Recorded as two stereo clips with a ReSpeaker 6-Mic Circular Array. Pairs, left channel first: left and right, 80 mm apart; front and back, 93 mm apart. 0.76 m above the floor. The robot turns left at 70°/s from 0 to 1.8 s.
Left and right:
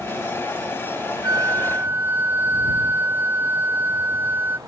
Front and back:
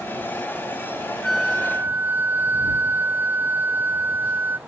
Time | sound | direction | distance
1.2 | a flute | 90° right | ?